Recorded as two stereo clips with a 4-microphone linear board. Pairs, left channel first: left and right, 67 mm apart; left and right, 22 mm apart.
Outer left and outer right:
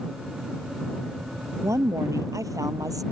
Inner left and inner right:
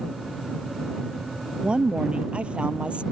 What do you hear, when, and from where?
1.6 s a woman speaking: 50° right (ahead or behind); by 3.0 s 60° right (ahead or behind)